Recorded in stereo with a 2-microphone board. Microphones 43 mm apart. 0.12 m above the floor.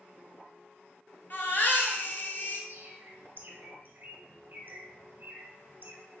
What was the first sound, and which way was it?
A baby crying, 45° left (ahead or behind).